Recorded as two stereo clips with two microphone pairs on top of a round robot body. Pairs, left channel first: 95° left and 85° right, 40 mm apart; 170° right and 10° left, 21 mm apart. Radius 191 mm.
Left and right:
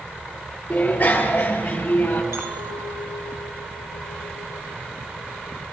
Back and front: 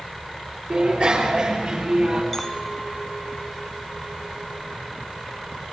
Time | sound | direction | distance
0.7 | a bicycle bell | 45° left | 7.5 m
2.3 | a clink | 85° right | 2.5 m